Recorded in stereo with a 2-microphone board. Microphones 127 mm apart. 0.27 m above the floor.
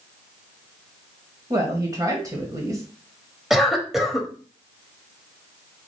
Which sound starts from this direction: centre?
A cough, at 3.5 s.